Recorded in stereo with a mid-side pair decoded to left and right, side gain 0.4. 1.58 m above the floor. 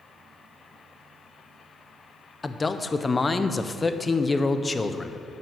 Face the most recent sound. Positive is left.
turn(degrees=30)